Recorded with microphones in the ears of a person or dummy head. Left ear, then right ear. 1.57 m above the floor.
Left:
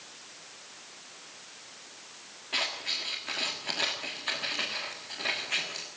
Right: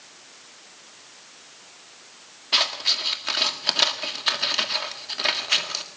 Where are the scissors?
50° right (ahead or behind), 1.8 m.